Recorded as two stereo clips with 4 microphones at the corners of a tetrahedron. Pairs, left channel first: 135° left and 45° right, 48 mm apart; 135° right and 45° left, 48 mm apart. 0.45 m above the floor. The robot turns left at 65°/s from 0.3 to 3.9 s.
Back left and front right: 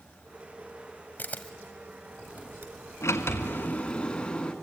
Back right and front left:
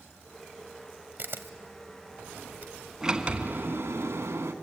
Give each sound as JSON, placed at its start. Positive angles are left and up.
{"t": 1.2, "sound": "a camera shutter", "azimuth_deg": 90, "distance_m": 1.2}
{"t": 3.0, "sound": "a sliding door", "azimuth_deg": 125, "distance_m": 1.7}